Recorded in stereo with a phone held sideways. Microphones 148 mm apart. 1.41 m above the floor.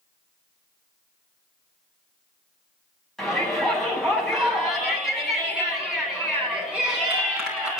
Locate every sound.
3.2 s a shout: 5° left (ahead or behind), 9.5 m; by 7.8 s 5° right (ahead or behind), 12.5 m